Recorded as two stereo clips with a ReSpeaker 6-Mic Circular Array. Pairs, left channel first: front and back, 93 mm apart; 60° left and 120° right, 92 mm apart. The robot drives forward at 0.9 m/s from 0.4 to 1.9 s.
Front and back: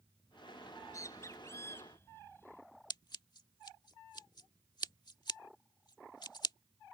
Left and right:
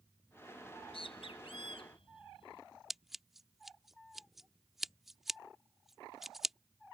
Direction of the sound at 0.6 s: 50° left.